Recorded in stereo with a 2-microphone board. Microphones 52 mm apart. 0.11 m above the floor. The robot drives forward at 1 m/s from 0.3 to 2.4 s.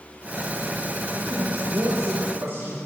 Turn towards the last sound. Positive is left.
turn(degrees=-60)  # may be behind; listen again after turning